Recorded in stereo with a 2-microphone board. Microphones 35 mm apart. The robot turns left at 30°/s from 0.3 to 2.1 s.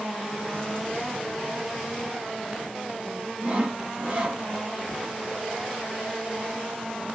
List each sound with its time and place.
3.4 s sawing: 35° right (ahead or behind), 0.9 m